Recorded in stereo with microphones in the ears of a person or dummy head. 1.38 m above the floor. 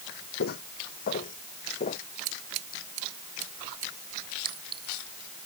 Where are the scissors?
65° right (ahead or behind).